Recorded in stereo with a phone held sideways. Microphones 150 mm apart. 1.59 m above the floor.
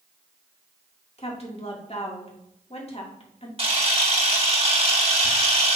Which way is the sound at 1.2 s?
40° left (ahead or behind).